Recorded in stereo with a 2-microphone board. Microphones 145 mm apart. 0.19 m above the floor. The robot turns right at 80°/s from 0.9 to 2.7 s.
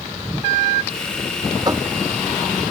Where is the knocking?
30° right (ahead or behind); by 1.9 s 10° right (ahead or behind).